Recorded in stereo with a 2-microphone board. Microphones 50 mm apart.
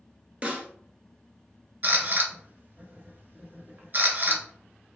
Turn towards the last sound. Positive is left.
turn(degrees=-40)  # may be behind; listen again after turning